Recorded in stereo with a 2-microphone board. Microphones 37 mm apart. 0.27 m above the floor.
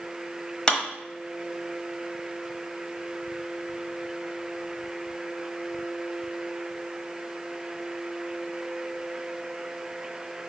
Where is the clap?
25° left (ahead or behind), 1.2 m.